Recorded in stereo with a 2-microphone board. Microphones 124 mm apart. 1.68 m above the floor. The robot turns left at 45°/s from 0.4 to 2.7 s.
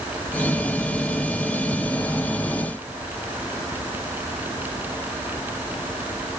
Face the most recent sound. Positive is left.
No sound to turn to.